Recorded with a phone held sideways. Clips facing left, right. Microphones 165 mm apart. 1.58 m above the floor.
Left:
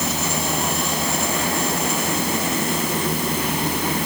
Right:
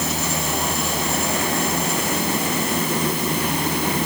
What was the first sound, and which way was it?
Only background noise.